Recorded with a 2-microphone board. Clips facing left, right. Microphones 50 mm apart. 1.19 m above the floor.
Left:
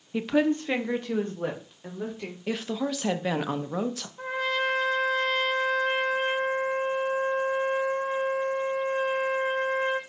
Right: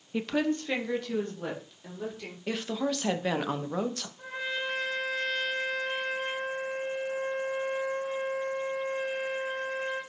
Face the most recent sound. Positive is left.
turn(degrees=70)  # may be behind; listen again after turning